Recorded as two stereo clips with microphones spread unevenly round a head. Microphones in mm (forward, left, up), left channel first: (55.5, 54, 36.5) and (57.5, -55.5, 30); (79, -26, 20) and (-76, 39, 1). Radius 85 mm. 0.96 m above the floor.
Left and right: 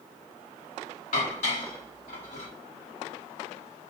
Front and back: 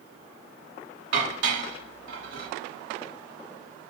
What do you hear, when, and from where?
1.1 s dishes clattering: 135° left, 1.1 m